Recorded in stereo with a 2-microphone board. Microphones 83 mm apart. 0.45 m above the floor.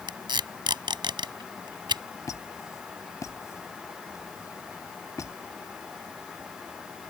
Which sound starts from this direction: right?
Tape being pulled, at 0.1 s.